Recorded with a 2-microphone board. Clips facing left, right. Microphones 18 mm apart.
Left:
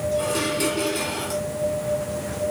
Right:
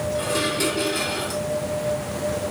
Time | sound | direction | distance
0.1 | dishes clattering | centre (ahead or behind) | 2.5 m